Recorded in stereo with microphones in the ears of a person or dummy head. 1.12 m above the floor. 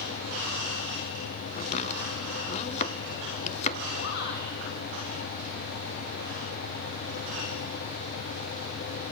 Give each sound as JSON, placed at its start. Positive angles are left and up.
{"t": 1.6, "sound": "chopping", "side_deg": 35, "distance_m": 1.5}
{"t": 4.0, "sound": "a shout", "side_deg": 60, "distance_m": 6.0}